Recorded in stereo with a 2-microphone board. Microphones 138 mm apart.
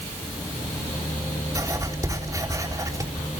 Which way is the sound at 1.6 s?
25° right (ahead or behind).